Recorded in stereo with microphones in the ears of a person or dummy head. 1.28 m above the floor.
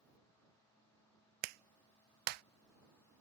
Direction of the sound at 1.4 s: 55° right (ahead or behind).